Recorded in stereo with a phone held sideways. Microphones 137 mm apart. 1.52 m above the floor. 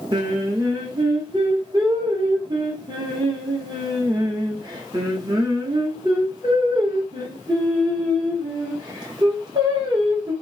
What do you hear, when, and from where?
0.1 s singing: 30° right (ahead or behind), 1.0 m